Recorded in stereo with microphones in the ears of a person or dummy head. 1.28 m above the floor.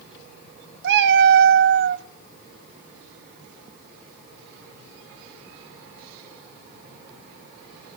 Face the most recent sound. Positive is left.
turn(degrees=-60)  # may be behind; listen again after turning